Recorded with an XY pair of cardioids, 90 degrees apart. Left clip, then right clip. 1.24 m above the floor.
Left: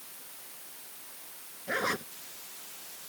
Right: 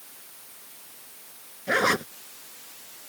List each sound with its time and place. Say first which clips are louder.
1.7 s a zipper: right 8 dB; 60° right